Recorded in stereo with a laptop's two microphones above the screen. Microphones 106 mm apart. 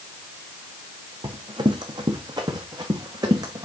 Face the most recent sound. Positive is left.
turn(degrees=-35)  # may be behind; listen again after turning